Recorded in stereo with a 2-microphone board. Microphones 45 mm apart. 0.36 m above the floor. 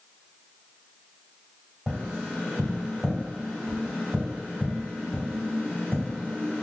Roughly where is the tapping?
Centre.